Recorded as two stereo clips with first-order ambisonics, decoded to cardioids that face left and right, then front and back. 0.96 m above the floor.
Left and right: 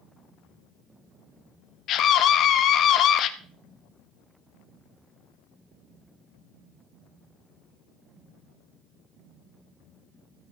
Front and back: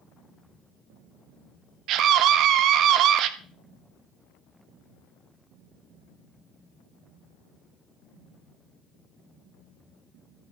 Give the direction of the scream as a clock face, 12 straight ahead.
7 o'clock.